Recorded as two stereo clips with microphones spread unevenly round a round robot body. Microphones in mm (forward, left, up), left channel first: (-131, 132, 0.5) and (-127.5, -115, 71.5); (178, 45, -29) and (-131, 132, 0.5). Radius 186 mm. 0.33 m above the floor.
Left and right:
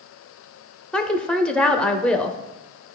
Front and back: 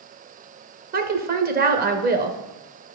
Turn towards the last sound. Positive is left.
turn(degrees=130)